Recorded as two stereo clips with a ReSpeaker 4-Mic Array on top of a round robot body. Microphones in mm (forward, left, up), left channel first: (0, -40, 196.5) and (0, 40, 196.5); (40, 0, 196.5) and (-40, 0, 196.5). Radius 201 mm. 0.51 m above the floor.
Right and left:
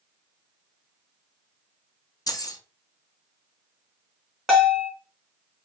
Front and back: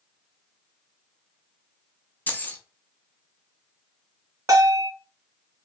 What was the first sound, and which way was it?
Keys jangling, 65° right.